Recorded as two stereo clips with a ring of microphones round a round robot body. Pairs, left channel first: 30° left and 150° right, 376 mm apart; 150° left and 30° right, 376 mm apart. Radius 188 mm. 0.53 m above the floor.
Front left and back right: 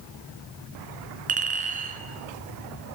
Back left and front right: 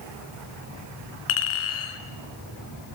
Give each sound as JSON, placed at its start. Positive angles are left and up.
{"t": 1.3, "sound": "a clink", "azimuth_deg": 140, "distance_m": 3.5}